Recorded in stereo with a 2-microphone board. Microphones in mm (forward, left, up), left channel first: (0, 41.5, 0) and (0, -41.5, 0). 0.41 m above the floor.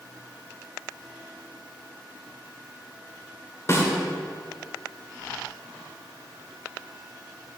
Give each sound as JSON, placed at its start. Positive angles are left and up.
{"t": 3.7, "sound": "a snare drum", "side_deg": 35, "distance_m": 1.7}